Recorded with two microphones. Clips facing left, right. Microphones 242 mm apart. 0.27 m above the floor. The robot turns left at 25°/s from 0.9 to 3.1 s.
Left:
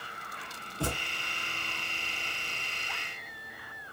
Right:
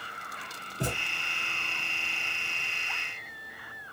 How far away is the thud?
About 1.2 m.